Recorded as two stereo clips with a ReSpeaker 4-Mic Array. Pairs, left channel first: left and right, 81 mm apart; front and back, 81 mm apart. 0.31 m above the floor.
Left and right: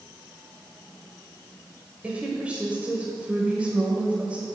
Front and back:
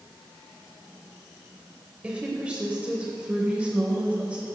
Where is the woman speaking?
130° right, 1.0 m.